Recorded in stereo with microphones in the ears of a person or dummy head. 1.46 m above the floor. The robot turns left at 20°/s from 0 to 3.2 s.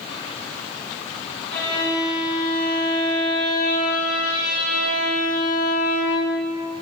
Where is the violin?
170° left, 6 m; by 6.5 s 135° left, 6 m.